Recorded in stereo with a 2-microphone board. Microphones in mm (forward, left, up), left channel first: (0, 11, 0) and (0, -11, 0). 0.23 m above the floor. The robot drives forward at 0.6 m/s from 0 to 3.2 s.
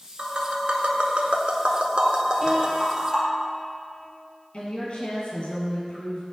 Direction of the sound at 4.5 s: 55° left (ahead or behind).